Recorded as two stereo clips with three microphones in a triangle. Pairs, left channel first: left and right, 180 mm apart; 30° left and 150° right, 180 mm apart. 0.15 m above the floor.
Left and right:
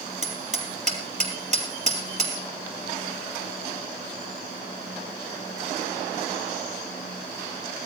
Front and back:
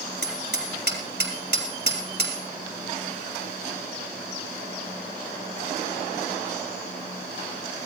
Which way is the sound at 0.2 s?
140° right.